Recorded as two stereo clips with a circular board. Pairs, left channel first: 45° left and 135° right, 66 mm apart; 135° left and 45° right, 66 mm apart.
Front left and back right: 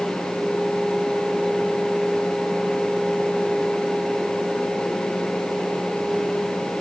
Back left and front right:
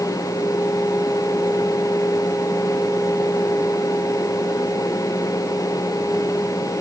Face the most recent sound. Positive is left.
No sound to turn to.